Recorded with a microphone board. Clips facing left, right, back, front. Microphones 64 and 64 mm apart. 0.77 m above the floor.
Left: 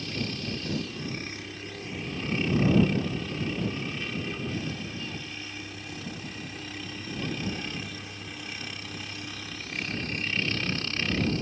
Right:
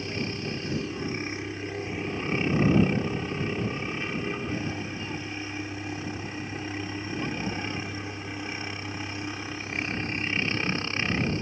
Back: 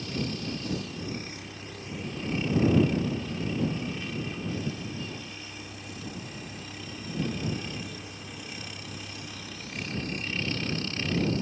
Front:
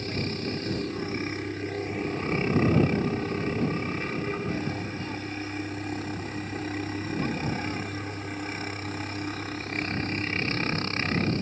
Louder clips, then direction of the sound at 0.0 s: Right 2 dB, front 2 dB; 30° right.